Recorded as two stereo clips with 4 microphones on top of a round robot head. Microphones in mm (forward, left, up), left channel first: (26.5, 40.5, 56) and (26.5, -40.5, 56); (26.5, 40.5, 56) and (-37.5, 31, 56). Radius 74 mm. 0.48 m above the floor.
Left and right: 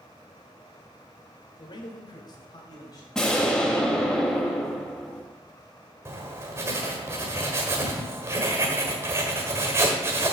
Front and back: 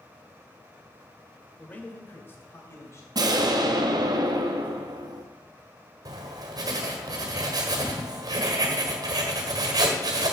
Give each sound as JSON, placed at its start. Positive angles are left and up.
{"t": 1.6, "sound": "a man speaking", "azimuth_deg": 80, "distance_m": 1.8}
{"t": 3.1, "sound": "an explosion", "azimuth_deg": 170, "distance_m": 1.1}
{"t": 6.0, "sound": "writing", "azimuth_deg": -150, "distance_m": 1.5}